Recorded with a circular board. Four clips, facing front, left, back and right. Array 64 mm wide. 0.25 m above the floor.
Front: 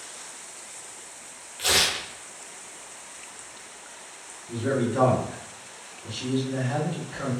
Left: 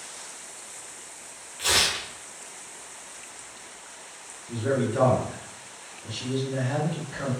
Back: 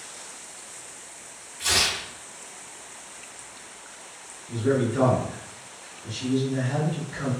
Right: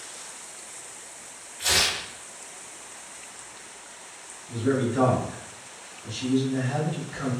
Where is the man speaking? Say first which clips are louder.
Right 1 dB, back 2 dB; 45° left, 1.6 m.